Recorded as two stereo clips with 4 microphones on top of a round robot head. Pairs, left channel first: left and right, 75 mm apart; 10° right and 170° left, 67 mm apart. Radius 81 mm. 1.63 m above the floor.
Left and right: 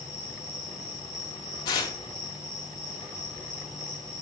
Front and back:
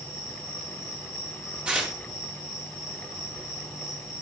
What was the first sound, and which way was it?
An insect, 50° right.